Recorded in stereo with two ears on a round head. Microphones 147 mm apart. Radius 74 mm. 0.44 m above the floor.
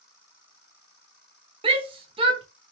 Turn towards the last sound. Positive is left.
turn(degrees=-35)  # may be behind; listen again after turning